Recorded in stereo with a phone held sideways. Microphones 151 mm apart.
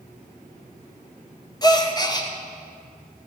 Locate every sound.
1.6 s a gasp: 25° left (ahead or behind), 0.8 m